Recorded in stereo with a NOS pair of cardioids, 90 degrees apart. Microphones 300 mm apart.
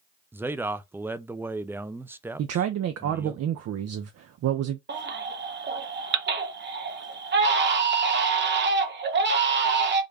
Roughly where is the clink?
I don't hear a clink.